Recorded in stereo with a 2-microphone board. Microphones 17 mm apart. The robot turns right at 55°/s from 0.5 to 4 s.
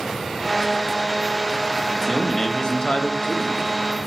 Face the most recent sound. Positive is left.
turn(degrees=135)